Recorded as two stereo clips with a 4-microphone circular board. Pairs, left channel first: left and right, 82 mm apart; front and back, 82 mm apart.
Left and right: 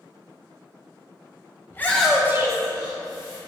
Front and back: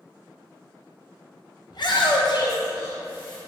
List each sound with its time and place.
1.7 s a shout: 30° left, 0.9 m; by 3.4 s 70° right, 1.8 m